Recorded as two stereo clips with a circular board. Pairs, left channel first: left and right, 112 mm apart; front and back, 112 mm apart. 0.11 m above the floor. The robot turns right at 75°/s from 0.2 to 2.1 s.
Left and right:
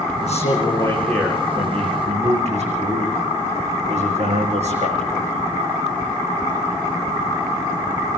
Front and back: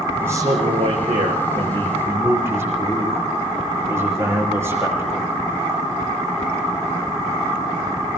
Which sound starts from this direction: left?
A man speaking, at 0.2 s.